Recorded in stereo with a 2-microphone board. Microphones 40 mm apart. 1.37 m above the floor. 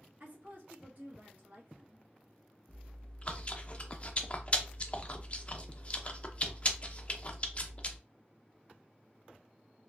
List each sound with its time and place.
0.2 s a woman speaking: 45° right (ahead or behind), 1.7 m
2.7 s chewing: 30° left (ahead or behind), 0.5 m